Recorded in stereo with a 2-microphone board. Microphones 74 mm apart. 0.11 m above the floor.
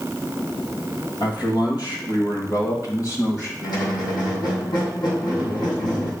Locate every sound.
1.2 s a man speaking: 65° left (ahead or behind), 3 m; by 3.5 s 45° left (ahead or behind), 3.5 m
3.6 s a squeak: 70° left (ahead or behind), 3 m